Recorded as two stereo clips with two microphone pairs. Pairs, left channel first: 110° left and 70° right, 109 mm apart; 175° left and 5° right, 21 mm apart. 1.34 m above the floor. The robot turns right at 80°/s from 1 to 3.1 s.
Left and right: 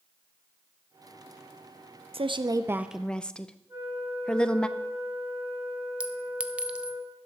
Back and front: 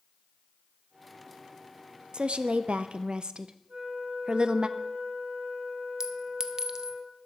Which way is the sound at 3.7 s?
10° right.